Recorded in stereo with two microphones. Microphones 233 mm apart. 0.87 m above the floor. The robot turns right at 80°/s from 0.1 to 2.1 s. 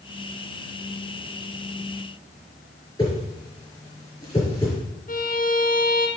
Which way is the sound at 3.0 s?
20° left (ahead or behind).